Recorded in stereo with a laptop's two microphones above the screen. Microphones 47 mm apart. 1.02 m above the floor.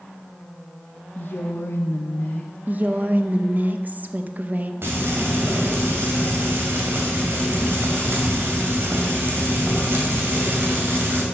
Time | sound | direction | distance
1.1 | a woman speaking | 50° left (ahead or behind) | 0.9 m
2.7 | a woman speaking | 40° right (ahead or behind) | 0.8 m
4.8 | frying | 55° right (ahead or behind) | 2.5 m